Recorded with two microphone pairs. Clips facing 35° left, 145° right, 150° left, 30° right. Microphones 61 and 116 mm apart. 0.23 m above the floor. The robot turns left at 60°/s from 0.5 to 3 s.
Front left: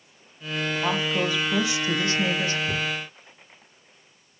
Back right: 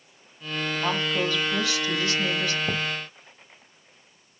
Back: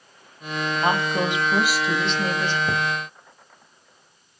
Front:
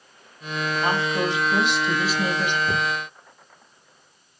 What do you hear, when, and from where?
0.8 s a woman speaking: 125° left, 1.5 m; by 2.6 s 20° left, 1.5 m
2.7 s a thud: 145° right, 3.5 m; by 2.9 s 155° right, 3.5 m